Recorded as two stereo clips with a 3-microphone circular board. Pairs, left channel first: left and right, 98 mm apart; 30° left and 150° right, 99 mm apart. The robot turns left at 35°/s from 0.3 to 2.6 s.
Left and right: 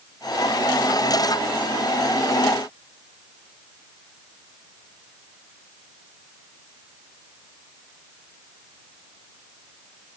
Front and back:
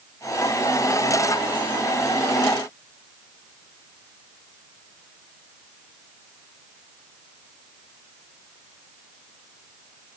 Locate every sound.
Only background noise.